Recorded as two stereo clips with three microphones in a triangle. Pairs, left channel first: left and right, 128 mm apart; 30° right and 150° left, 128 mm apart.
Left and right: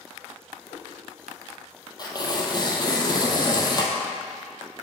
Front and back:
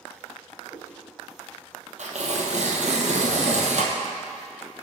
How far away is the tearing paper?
About 1.0 m.